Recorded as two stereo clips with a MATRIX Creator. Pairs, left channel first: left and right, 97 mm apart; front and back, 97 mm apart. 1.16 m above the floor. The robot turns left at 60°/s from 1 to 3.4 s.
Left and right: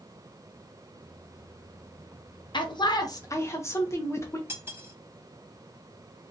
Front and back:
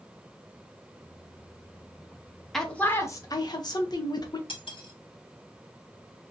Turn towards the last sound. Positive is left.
turn(degrees=-25)